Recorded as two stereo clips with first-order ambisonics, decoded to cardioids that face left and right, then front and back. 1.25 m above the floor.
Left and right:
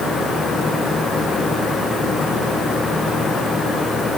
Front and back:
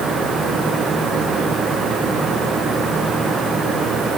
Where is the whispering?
I don't hear whispering.